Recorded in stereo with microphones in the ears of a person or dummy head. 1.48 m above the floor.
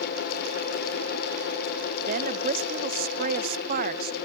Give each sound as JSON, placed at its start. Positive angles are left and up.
{"t": 2.1, "sound": "a woman speaking", "side_deg": -55}